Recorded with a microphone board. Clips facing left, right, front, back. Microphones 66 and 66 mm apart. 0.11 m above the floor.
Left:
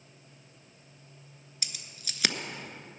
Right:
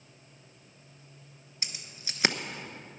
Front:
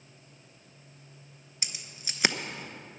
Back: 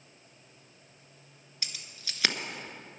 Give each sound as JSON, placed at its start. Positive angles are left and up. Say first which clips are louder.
{"t": 1.6, "sound": "keys jangling", "louder": "right 2 dB, front 1 dB", "azimuth_deg": -55, "distance_m": 0.9}